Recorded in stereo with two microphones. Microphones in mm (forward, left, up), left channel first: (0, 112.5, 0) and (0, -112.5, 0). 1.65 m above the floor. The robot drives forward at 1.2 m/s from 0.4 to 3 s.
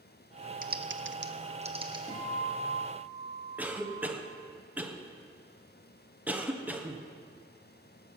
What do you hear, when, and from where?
0.6 s typing on a keyboard: 40° right (ahead or behind), 0.7 m; by 2.0 s 20° right (ahead or behind), 1.3 m
2.1 s a guitar: 35° left (ahead or behind), 2.5 m; by 4.1 s 25° left (ahead or behind), 3.5 m
3.6 s a cough: 5° right (ahead or behind), 1.3 m